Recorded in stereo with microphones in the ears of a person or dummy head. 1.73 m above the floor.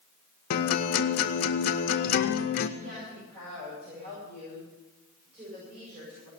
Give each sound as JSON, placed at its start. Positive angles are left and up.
{"t": 0.5, "sound": "a guitar", "side_deg": 50, "distance_m": 0.8}
{"t": 2.8, "sound": "a woman speaking", "side_deg": -45, "distance_m": 8.5}